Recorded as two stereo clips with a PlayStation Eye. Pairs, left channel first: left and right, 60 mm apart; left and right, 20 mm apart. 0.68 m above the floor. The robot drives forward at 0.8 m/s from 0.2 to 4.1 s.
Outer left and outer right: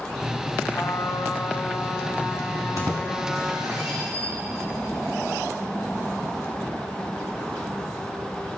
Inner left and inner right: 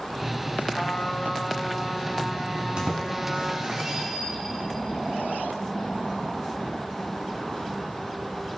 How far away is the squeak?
About 3 m.